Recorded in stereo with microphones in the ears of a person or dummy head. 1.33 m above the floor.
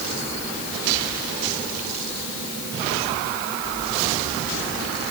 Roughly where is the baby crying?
I don't hear a baby crying.